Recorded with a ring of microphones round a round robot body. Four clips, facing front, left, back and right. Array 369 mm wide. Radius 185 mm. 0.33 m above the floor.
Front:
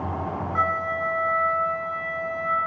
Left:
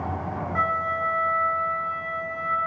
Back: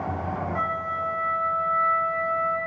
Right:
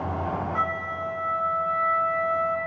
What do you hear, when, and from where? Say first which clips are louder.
0.6 s a flute: left 3 dB, front 7 dB; 20° right, 1.8 m